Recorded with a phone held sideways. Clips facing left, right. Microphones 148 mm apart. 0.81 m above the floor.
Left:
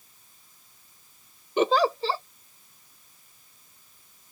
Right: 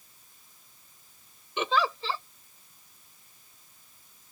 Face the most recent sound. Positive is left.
turn(degrees=40)  # may be behind; listen again after turning